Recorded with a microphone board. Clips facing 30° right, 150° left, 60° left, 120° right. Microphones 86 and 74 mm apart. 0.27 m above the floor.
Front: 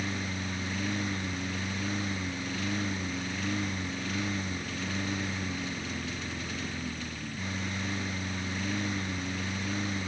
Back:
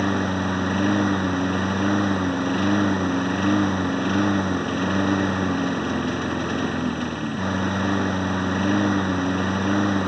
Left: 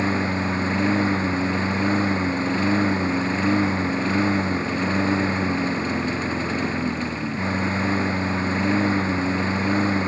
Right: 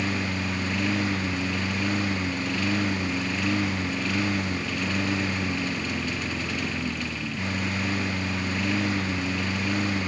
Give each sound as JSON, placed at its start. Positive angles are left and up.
{"t": 0.0, "sound": "a lawn mower", "azimuth_deg": 120}